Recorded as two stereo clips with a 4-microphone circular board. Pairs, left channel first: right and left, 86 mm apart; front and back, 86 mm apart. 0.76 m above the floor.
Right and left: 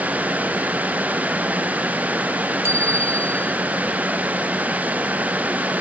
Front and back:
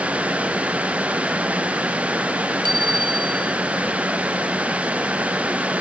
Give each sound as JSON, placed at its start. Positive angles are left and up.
{"t": 2.6, "sound": "a bicycle bell", "azimuth_deg": 145}